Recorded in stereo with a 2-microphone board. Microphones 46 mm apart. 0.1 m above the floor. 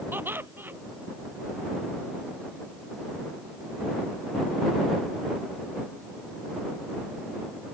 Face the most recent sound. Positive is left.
turn(degrees=-45)  # may be behind; listen again after turning